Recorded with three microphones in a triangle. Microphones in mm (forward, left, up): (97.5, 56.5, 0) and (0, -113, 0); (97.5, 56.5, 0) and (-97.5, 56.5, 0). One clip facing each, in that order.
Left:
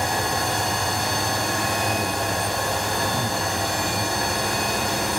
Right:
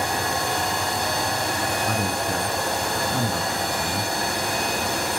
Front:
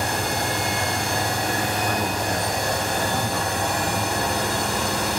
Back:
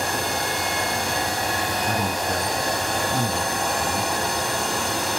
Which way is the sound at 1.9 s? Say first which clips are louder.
Even, even; 135° right.